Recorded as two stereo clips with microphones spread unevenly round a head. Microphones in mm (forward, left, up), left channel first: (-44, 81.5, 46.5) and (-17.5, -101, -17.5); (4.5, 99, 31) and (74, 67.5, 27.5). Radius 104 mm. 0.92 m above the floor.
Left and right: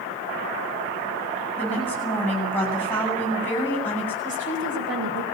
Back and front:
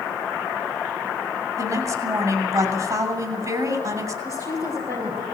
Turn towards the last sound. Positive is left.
turn(degrees=-100)